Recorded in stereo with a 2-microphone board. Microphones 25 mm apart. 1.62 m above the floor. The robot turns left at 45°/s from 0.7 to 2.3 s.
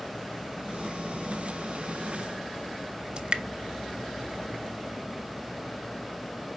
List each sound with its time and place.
3.2 s dripping: 35° right (ahead or behind), 0.6 m